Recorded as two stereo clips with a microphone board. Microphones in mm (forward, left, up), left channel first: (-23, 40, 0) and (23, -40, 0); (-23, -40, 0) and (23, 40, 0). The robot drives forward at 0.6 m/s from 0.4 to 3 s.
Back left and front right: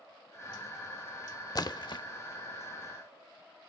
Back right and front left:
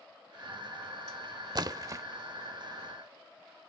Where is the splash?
85° left, 0.9 m; by 2.0 s 110° left, 0.9 m.